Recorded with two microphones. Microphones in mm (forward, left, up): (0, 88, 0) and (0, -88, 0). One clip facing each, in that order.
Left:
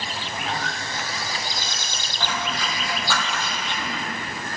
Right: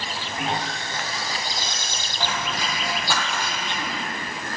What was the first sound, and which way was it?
Sawing, 30° right (ahead or behind).